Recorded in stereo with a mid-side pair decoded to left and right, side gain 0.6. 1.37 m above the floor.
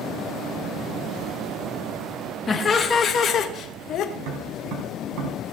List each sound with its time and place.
2.5 s laughter: 30° left, 2.5 m; by 4.0 s 55° left, 1.8 m
4.2 s tapping: 60° right, 4.5 m